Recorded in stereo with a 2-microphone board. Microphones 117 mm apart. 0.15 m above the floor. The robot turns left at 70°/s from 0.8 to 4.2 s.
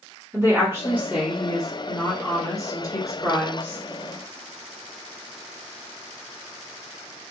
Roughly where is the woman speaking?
Right.